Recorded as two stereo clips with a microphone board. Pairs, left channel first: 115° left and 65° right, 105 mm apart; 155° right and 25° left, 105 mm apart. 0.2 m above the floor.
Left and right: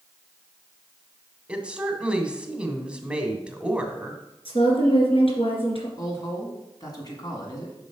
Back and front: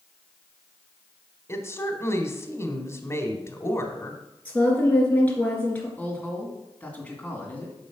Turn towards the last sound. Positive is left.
turn(degrees=135)